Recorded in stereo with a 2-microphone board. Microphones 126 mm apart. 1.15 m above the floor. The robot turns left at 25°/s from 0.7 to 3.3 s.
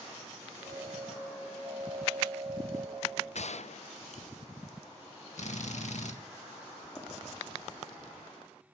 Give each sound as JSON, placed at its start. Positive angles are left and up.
{"t": 3.4, "sound": "a gunshot", "side_deg": 65, "distance_m": 0.5}
{"t": 5.4, "sound": "a drill", "side_deg": 70, "distance_m": 1.6}
{"t": 7.0, "sound": "running footsteps", "side_deg": 20, "distance_m": 3.0}